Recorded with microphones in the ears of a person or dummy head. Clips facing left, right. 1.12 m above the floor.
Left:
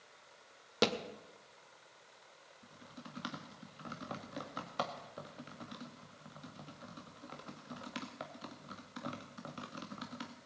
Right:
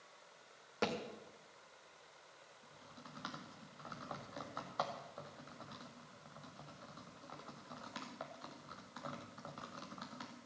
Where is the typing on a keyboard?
40° left (ahead or behind), 1.9 m.